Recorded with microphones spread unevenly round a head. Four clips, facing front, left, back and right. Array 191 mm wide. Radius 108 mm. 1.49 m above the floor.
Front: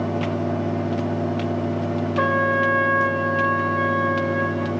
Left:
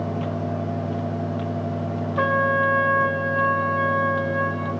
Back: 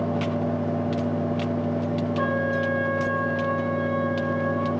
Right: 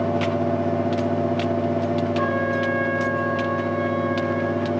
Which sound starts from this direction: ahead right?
A fan, at 0.0 s.